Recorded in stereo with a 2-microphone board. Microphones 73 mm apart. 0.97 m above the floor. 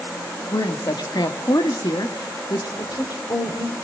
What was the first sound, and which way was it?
A woman speaking, 70° left (ahead or behind).